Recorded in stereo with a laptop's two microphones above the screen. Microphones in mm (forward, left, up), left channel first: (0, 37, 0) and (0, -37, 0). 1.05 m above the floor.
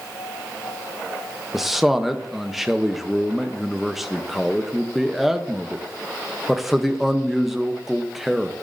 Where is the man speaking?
5° right (ahead or behind), 0.7 m.